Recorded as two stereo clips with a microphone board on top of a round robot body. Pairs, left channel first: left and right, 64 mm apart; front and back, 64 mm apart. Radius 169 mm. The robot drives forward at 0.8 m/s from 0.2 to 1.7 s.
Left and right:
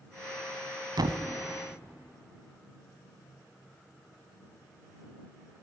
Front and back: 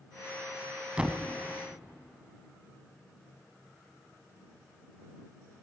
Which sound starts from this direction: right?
A thud, at 1.0 s.